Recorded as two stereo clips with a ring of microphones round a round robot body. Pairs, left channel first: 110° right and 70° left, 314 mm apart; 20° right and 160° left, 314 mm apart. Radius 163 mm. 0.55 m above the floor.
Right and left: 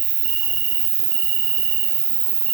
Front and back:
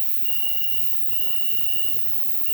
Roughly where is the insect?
Left.